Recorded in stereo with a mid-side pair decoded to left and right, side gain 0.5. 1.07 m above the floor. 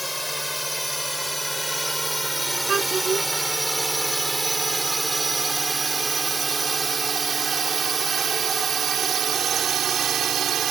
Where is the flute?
No flute in this recording.